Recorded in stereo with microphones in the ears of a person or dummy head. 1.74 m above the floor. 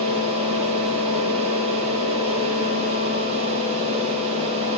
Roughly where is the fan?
Right.